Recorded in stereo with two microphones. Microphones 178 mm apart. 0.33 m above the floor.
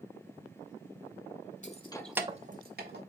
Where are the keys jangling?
45° left (ahead or behind), 0.9 m; by 3.0 s 70° right (ahead or behind), 1.3 m.